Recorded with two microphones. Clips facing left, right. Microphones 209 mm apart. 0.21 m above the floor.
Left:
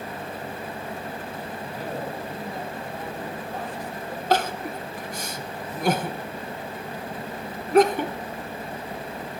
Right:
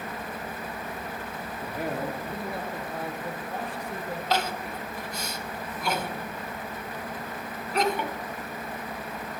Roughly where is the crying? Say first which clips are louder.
Left 6 dB; left.